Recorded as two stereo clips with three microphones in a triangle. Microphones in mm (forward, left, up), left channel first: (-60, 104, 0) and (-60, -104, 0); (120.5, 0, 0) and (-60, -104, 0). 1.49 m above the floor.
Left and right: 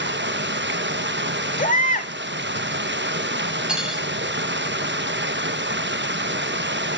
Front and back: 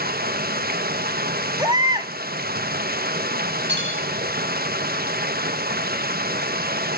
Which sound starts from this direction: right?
Running water, at 0.0 s.